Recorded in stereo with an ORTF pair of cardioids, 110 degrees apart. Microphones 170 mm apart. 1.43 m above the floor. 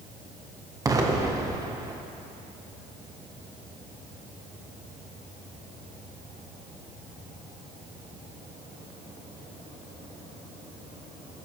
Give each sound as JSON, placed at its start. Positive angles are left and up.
{"t": 0.8, "sound": "an explosion", "azimuth_deg": -20, "distance_m": 1.2}